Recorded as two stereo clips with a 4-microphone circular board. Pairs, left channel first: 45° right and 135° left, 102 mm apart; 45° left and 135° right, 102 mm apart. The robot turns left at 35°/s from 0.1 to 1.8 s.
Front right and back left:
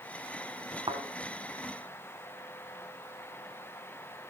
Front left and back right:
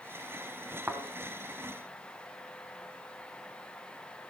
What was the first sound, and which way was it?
A thud, 155° left.